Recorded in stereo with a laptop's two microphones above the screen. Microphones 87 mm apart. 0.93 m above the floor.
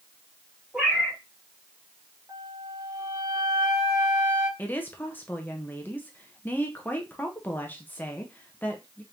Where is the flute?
45° right (ahead or behind), 1.6 m.